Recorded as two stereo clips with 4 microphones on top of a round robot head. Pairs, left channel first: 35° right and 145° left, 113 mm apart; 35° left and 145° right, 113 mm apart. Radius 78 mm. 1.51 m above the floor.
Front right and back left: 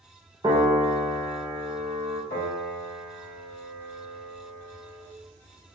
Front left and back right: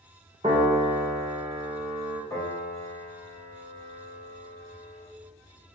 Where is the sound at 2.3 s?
35° right, 1.5 m.